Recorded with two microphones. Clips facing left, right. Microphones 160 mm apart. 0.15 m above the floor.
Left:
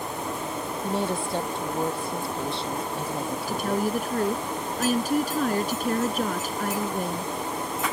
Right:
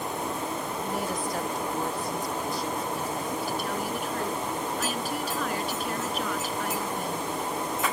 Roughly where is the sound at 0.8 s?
Left.